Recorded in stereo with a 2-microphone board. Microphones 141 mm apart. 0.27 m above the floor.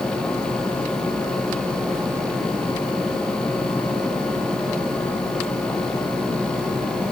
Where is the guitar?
I don't hear a guitar.